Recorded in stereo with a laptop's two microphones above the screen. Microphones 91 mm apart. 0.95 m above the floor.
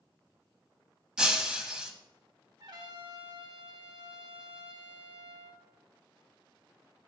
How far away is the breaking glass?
About 1.2 m.